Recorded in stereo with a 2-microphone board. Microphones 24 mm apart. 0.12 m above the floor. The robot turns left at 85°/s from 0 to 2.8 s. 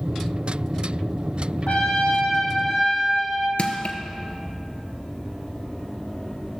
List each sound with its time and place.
1.7 s a trumpet: 100° left, 3 m; by 3.5 s straight ahead, 3 m
3.6 s crushing: 55° left (ahead or behind), 1.1 m